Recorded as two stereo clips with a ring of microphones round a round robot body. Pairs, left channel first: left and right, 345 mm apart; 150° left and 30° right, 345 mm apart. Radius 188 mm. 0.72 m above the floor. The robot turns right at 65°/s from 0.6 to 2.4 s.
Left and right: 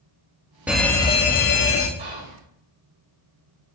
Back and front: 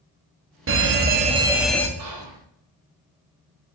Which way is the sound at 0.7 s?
5° right.